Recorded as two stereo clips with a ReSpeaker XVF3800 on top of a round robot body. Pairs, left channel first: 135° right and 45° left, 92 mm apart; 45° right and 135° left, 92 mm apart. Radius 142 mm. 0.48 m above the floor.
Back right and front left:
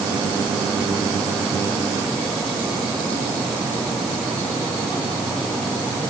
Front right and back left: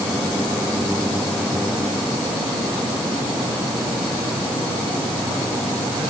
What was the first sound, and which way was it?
Only background noise.